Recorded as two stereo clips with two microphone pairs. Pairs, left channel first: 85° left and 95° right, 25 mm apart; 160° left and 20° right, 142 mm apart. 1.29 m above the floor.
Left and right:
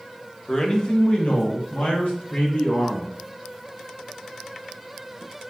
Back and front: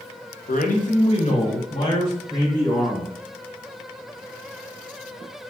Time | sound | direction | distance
0.5 | a man speaking | 155° left | 0.6 m